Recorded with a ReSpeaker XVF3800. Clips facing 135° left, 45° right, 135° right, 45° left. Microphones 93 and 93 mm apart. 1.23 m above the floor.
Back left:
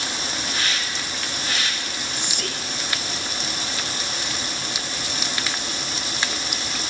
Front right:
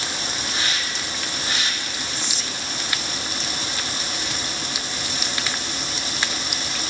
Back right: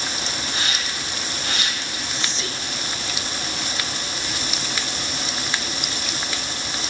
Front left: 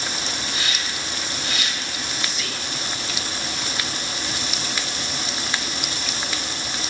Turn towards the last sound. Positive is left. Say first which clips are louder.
# back left 1 dB, back right 1 dB
turn(degrees=165)